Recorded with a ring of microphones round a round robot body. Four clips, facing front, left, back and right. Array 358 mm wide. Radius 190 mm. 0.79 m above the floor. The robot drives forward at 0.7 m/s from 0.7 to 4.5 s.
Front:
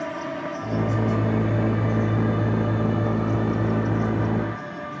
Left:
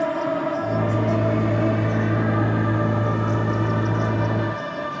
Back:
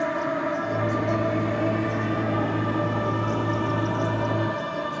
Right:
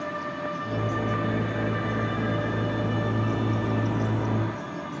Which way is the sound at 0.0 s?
110° left.